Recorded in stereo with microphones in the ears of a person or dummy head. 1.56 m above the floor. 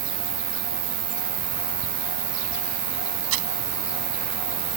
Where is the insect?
80° right.